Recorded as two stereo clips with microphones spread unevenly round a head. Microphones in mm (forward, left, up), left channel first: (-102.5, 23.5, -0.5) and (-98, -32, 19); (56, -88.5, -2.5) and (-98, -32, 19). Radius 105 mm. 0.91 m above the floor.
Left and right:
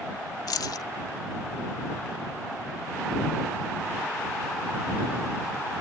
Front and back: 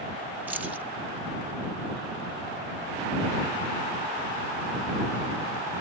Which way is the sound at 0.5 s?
75° left.